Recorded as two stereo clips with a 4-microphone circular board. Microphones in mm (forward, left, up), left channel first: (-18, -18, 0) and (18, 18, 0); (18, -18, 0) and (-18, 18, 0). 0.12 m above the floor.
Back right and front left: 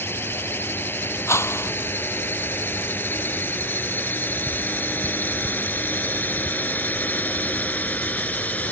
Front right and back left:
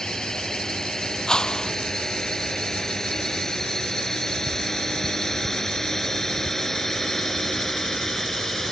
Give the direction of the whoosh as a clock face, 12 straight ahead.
4 o'clock.